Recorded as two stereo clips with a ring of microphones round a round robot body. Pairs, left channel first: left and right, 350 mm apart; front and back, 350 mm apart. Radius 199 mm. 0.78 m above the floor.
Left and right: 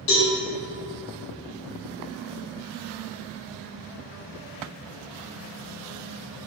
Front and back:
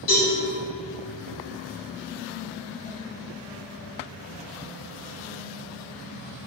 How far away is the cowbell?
About 1.1 m.